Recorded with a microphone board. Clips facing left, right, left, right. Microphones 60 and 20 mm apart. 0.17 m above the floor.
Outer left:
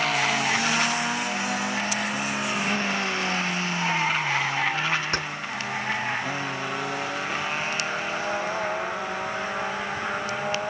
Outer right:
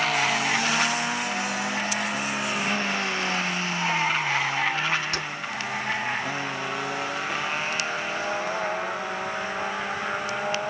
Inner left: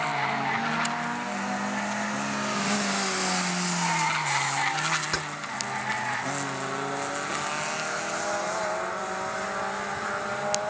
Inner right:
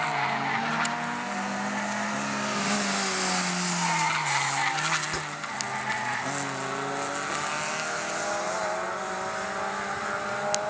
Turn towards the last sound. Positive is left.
turn(degrees=35)  # may be behind; listen again after turning